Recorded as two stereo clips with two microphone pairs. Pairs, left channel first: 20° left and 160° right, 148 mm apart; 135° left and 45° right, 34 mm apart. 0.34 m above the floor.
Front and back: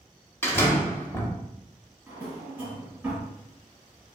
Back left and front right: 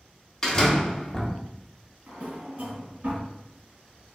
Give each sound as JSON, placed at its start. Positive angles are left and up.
{"t": 0.4, "sound": "a door slam", "azimuth_deg": 75, "distance_m": 0.6}
{"t": 2.1, "sound": "a drawer", "azimuth_deg": -80, "distance_m": 1.7}